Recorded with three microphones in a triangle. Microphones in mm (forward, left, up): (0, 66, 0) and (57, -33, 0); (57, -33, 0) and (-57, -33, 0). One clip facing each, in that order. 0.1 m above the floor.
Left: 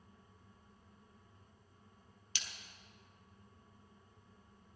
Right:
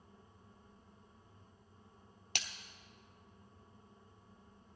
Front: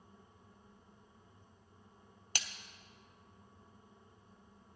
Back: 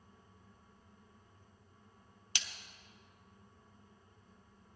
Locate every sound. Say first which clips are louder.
2.4 s a splash: right 6 dB, front 2 dB; 40° right, 0.9 m